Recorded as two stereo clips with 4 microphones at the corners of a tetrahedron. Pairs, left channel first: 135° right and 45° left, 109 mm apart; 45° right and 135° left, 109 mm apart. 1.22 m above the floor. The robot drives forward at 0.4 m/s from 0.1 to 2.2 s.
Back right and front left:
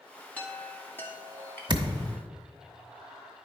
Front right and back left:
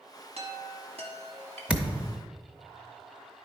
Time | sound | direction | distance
0.4 | a chime | 150° left | 1.2 m
1.7 | a thud | 55° left | 0.8 m